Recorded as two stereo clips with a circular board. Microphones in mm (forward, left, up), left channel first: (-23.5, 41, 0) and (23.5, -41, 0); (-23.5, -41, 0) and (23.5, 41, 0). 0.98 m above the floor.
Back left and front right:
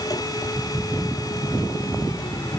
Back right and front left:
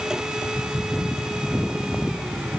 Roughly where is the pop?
I don't hear a pop.